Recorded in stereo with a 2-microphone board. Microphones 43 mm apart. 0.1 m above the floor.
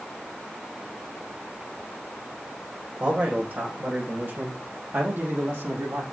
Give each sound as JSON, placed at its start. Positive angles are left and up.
{"t": 3.0, "sound": "a man speaking", "side_deg": -35, "distance_m": 6.0}